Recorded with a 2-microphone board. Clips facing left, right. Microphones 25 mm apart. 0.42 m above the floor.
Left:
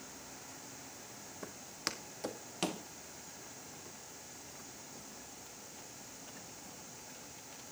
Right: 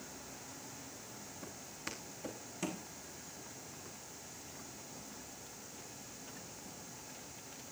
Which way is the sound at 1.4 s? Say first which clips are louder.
Left 6 dB; 75° left (ahead or behind).